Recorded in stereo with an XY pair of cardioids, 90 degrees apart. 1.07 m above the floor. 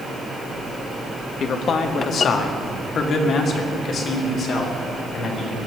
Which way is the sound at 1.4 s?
70° left.